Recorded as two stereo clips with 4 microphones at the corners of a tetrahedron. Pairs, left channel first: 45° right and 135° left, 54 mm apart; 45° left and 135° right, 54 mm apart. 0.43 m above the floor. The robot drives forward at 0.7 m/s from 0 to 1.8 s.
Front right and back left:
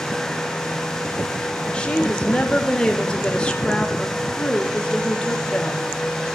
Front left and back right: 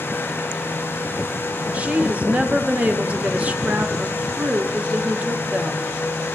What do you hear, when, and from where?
1.7 s a woman speaking: 95° right, 0.8 m; by 5.9 s 100° right, 0.8 m